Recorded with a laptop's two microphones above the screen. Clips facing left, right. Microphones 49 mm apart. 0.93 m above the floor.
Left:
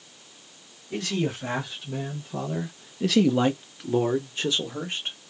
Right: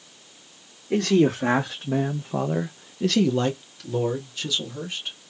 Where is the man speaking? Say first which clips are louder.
Right 9 dB; 80° right, 1.0 m; by 5.2 s 35° left (ahead or behind), 1.7 m.